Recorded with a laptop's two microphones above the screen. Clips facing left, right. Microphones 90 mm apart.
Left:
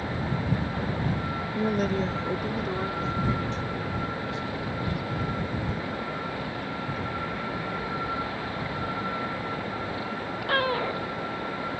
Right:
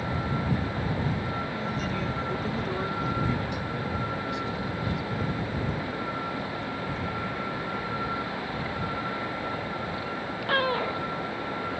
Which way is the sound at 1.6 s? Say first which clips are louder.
Left 5 dB; 60° left (ahead or behind).